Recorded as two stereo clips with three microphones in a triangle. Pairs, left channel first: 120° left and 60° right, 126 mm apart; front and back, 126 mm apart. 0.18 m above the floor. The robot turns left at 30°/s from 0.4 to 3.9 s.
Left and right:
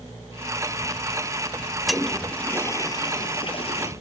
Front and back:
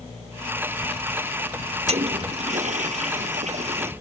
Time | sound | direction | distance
1.9 | a toilet flushing | 150° right | ?